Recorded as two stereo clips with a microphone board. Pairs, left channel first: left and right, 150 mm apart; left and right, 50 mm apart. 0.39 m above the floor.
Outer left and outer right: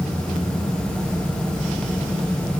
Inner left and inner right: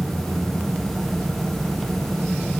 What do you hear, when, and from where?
Only background noise.